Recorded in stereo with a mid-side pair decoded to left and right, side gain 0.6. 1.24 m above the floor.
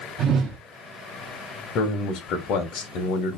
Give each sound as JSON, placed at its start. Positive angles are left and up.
{"t": 0.2, "sound": "a whoosh", "azimuth_deg": -55, "distance_m": 0.9}
{"t": 1.8, "sound": "a man speaking", "azimuth_deg": 65, "distance_m": 1.0}